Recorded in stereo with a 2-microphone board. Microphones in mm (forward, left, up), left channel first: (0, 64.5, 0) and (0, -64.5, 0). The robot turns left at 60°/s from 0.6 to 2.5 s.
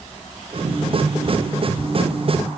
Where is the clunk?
I don't hear a clunk.